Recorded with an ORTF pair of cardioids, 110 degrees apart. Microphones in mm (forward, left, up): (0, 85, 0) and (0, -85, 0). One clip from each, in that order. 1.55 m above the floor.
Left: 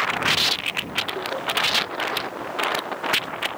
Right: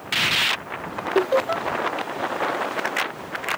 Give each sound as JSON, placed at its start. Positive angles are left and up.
{"t": 1.1, "sound": "laughter", "azimuth_deg": -60}